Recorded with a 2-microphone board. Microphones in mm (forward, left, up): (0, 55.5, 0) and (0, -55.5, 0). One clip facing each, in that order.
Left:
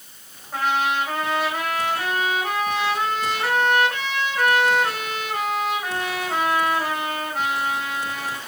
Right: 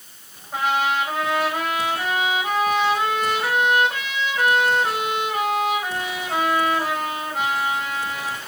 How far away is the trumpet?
About 4 m.